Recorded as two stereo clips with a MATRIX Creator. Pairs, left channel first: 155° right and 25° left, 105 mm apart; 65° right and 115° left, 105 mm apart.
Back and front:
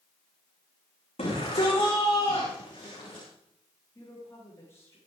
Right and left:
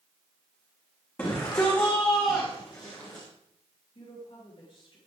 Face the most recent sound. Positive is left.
turn(degrees=-95)